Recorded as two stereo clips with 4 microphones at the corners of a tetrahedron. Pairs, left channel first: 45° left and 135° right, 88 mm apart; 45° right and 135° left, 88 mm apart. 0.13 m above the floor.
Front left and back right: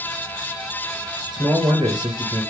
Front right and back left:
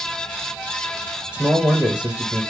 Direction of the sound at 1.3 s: 150° right.